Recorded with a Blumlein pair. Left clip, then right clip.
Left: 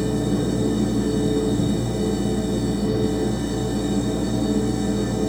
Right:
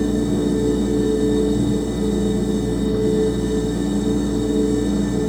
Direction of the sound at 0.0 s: Straight ahead.